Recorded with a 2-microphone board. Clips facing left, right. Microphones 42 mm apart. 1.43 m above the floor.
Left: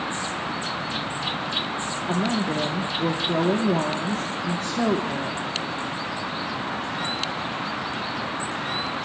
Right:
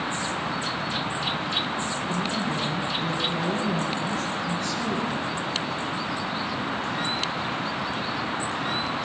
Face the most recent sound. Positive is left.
turn(degrees=80)